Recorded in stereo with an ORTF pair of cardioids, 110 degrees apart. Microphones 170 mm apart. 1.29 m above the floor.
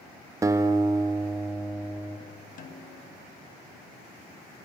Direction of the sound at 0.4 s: 20° right.